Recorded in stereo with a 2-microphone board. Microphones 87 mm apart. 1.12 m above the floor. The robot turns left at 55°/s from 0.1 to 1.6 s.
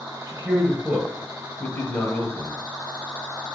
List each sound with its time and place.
0.3 s a man speaking: 135° right, 0.7 m; by 2.6 s 150° left, 0.7 m